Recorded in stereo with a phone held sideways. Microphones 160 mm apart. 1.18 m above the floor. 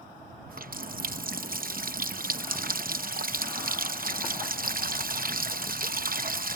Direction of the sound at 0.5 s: 60° right (ahead or behind).